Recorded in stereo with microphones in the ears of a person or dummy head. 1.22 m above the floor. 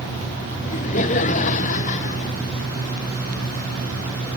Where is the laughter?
45° left (ahead or behind).